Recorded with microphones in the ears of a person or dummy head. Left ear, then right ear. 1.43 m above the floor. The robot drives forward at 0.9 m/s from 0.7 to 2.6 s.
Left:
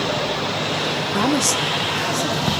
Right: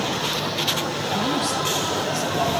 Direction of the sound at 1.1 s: 55° left (ahead or behind).